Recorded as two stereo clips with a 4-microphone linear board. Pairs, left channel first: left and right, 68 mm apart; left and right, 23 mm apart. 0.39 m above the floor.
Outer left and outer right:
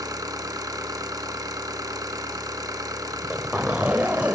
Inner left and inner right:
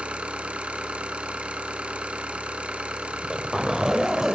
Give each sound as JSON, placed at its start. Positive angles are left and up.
{"t": 0.0, "sound": "an engine running", "side_deg": -65, "distance_m": 1.4}
{"t": 3.1, "sound": "a zipper", "side_deg": -20, "distance_m": 1.1}